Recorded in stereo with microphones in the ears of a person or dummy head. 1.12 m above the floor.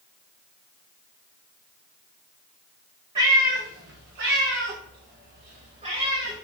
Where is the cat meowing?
35° right (ahead or behind), 2.5 m; by 6.4 s 25° right (ahead or behind), 2.5 m.